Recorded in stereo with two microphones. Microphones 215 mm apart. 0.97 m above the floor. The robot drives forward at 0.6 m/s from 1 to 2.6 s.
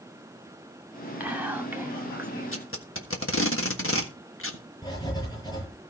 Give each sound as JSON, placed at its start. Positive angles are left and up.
{"t": 1.2, "sound": "whispering", "side_deg": -5, "distance_m": 2.5}
{"t": 2.5, "sound": "tape being pulled", "side_deg": 70, "distance_m": 1.5}
{"t": 4.8, "sound": "writing", "side_deg": 20, "distance_m": 8.5}